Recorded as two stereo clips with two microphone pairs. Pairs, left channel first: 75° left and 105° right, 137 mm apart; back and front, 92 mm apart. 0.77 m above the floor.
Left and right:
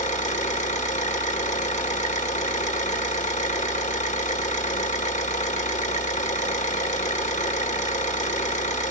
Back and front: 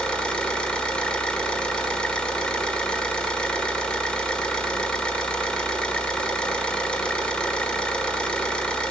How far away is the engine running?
About 1.9 m.